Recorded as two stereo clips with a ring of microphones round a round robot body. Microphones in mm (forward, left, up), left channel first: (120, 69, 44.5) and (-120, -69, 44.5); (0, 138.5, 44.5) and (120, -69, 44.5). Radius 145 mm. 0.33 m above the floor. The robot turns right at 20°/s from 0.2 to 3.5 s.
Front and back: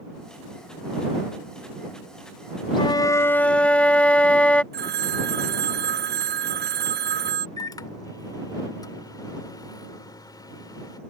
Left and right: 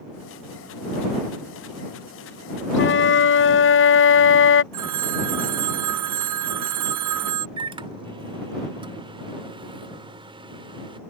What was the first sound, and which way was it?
A flute, 100° left.